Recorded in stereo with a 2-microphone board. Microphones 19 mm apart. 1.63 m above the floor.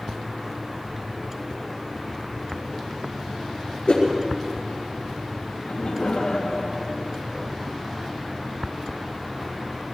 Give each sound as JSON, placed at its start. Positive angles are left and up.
{"t": 3.9, "sound": "a whoosh", "side_deg": 75, "distance_m": 6.0}
{"t": 5.5, "sound": "laughter", "side_deg": 75, "distance_m": 2.0}